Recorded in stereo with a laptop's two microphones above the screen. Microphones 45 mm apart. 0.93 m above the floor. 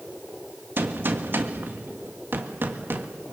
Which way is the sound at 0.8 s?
55° right (ahead or behind).